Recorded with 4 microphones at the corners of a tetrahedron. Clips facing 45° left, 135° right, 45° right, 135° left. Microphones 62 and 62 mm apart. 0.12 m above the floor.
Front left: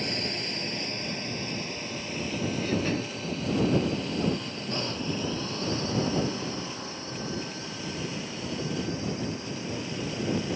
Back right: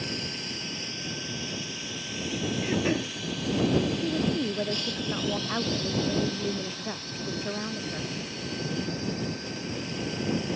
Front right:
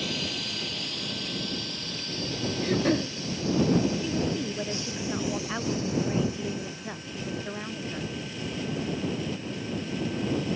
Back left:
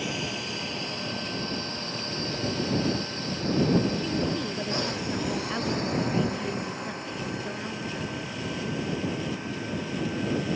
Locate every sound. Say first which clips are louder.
0.0 s a drone: front left 3 dB, back left 1 dB; 70° left; by 10.6 s 110° left
2.6 s throat clearing: back right 3 dB, front right 5 dB; 70° right
4.0 s a woman speaking: back right 2 dB, even; 125° right